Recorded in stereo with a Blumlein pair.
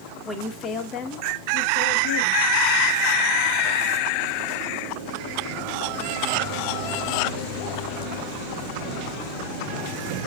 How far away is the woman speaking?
About 0.8 m.